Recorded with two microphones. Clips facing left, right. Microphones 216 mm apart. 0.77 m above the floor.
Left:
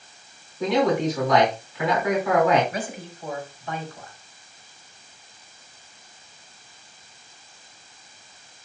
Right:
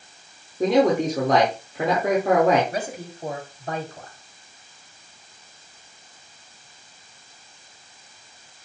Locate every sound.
0.6 s a man speaking: 45° right (ahead or behind), 2.5 m
2.7 s a man speaking: 40° right (ahead or behind), 4 m